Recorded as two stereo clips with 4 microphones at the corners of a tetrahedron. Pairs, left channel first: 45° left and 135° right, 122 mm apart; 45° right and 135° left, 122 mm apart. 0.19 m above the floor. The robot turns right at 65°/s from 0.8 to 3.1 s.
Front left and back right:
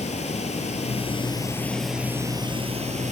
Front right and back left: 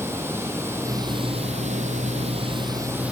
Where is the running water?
65° left, 1.2 m; by 3.1 s 145° right, 1.2 m.